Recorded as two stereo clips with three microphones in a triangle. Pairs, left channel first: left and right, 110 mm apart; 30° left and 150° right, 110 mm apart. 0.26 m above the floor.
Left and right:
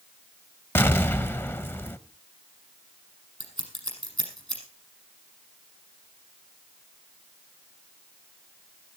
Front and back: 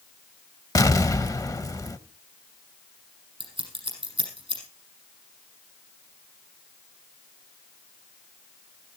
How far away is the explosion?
About 0.7 m.